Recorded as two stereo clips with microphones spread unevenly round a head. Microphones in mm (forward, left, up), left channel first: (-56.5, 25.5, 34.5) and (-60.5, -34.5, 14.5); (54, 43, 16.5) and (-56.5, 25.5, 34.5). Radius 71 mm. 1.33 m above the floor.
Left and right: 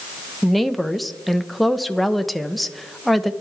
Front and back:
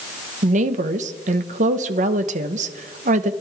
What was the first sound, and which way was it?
A woman speaking, 175° left.